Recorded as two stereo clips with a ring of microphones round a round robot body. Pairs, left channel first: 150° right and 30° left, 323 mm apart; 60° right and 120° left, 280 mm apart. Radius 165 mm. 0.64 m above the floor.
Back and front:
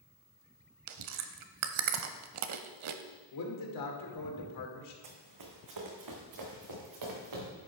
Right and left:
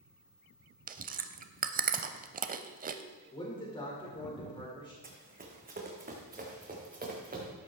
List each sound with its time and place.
0.9 s chewing: 65° left, 0.6 m
3.3 s a man speaking: 135° right, 2.5 m
5.0 s running footsteps: 60° left, 1.9 m